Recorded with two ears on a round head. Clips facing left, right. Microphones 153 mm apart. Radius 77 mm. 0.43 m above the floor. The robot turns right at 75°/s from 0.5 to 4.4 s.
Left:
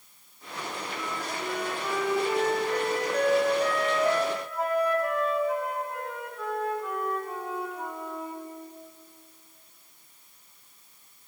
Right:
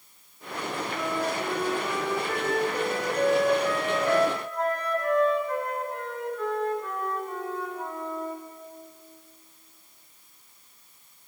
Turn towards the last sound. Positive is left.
turn(degrees=175)